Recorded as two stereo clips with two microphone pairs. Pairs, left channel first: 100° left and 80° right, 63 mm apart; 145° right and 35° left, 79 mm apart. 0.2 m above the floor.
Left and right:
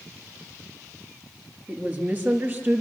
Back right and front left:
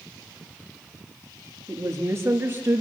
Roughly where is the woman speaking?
Ahead.